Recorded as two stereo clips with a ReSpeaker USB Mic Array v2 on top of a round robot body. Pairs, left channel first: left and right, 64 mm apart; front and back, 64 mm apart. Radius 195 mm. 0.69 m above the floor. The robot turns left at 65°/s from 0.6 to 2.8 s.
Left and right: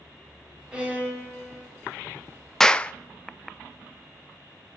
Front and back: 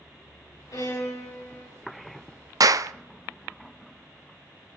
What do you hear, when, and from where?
0.7 s a violin: 15° right, 5 m; by 1.7 s 80° right, 5 m
2.6 s a clap: 175° left, 0.5 m; by 2.9 s 160° left, 0.5 m